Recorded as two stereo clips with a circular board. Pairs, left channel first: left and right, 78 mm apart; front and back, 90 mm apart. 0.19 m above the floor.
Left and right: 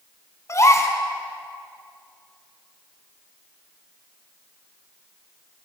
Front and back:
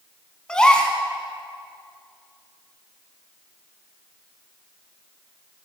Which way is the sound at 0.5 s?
75° left.